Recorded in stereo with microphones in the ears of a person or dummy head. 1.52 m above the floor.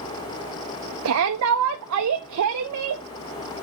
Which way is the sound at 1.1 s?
75° right (ahead or behind).